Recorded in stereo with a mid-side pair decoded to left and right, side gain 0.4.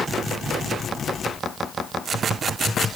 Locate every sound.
Only background noise.